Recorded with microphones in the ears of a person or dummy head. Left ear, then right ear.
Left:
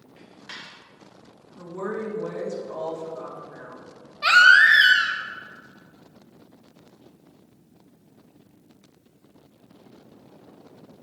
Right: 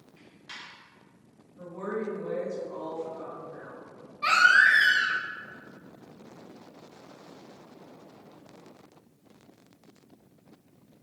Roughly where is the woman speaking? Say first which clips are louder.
Left 3 dB; left.